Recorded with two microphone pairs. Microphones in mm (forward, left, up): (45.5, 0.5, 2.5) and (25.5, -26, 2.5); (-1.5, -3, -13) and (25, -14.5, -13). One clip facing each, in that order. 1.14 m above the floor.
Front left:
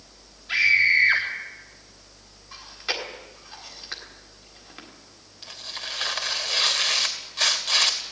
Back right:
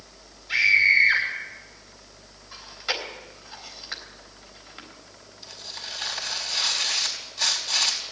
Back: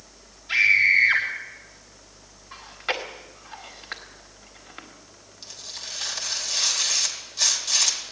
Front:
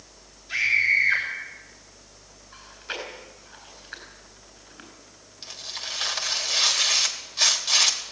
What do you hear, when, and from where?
0.5 s a scream: 105° left, 3 m
2.5 s chewing: 135° left, 3.5 m
5.4 s tearing paper: 40° left, 2.5 m